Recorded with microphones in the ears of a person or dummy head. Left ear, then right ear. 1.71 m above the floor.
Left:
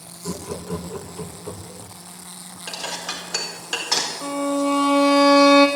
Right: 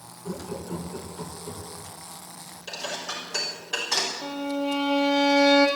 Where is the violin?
60° left (ahead or behind), 2.5 m.